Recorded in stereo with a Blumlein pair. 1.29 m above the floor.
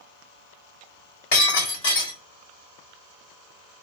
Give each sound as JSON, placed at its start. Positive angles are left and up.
{"t": 1.3, "sound": "breaking glass", "azimuth_deg": 55, "distance_m": 1.8}